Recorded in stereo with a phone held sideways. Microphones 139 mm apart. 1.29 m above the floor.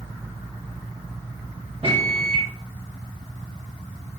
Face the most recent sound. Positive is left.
turn(degrees=-40)  # may be behind; listen again after turning